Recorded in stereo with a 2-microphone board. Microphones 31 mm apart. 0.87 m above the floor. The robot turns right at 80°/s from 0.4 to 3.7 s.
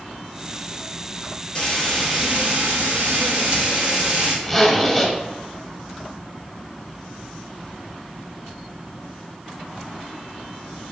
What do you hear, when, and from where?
1.6 s frying: 150° left, 1.1 m; by 4.3 s 40° right, 1.1 m
4.4 s a zipper: 5° left (ahead or behind), 0.7 m